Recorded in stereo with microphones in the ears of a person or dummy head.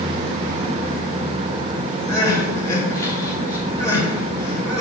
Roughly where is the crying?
Centre.